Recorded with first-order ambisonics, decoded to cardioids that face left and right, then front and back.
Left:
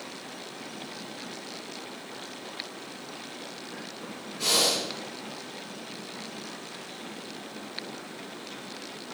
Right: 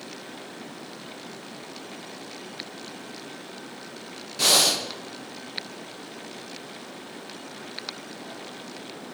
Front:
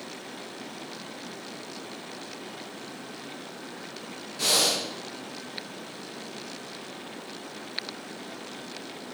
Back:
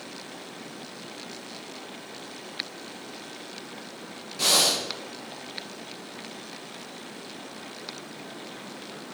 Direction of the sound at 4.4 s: 100° right.